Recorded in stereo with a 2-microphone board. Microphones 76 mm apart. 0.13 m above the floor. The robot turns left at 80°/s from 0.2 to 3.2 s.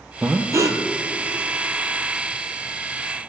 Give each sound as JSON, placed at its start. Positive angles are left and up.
{"t": 0.2, "sound": "breathing", "azimuth_deg": -20, "distance_m": 0.5}